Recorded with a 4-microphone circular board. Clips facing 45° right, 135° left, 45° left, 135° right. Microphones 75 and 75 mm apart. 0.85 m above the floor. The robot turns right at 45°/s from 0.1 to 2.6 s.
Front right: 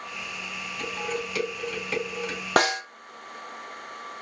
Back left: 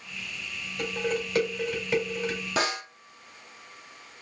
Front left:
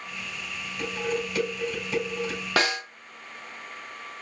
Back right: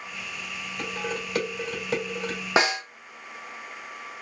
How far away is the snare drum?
About 0.7 m.